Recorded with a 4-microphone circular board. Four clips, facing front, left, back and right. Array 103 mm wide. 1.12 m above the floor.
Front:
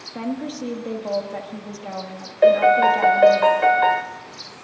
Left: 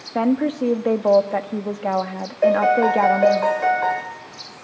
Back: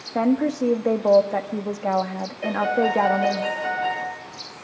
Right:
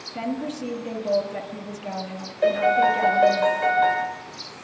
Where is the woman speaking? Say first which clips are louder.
Left 9 dB, back 8 dB; 120° left, 1.4 m.